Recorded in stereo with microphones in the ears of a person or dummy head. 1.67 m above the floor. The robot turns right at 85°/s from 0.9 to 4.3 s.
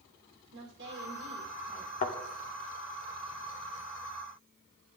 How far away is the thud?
About 1.5 m.